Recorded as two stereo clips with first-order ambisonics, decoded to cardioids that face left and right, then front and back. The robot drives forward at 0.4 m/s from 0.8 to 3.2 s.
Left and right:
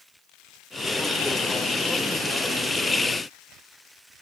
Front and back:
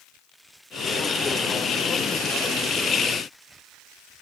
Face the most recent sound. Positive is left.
No sound to turn to.